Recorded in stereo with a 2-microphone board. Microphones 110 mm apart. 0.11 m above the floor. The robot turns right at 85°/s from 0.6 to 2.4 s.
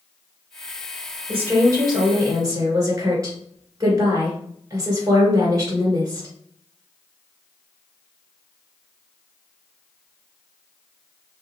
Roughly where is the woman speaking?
Behind.